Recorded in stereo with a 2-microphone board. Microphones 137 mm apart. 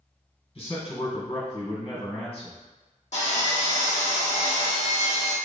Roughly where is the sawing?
Left.